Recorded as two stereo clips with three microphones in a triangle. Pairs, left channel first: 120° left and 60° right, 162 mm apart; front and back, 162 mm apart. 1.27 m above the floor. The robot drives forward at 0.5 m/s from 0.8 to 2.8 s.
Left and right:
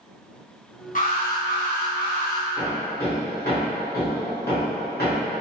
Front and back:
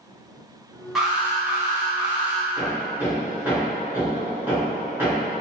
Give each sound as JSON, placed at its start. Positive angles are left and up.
{"t": 0.9, "sound": "an alarm", "azimuth_deg": 95, "distance_m": 1.1}
{"t": 2.6, "sound": "hammering", "azimuth_deg": 100, "distance_m": 1.2}